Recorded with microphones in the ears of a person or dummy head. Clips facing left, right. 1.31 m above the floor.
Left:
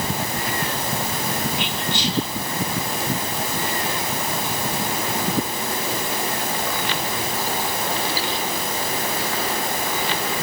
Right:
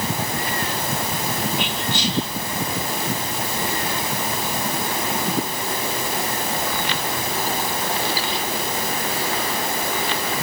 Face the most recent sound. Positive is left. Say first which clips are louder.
# right 1 dB
turn(degrees=-70)  # may be behind; listen again after turning